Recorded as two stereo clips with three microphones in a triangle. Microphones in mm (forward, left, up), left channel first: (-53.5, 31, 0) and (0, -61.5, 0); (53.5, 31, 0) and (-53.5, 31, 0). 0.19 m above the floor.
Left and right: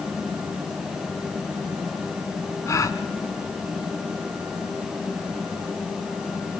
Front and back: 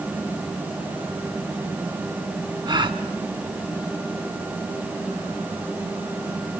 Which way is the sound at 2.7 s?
170° left.